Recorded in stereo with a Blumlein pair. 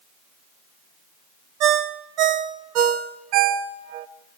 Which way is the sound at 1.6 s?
40° right.